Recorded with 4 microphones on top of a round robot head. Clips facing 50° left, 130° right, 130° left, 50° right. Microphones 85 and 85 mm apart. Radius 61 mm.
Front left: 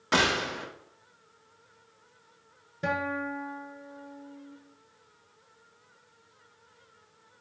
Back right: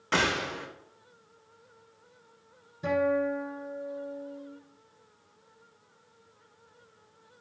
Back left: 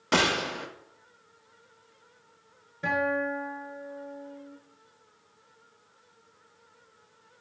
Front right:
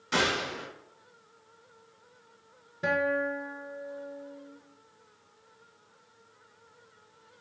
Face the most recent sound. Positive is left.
turn(degrees=20)